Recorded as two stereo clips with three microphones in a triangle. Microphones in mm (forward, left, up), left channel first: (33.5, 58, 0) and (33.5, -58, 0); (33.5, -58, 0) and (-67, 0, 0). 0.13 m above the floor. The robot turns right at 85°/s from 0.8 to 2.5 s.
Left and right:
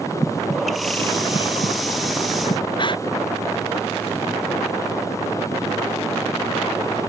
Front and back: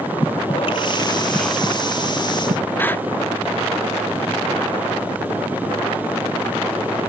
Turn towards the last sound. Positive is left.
turn(degrees=40)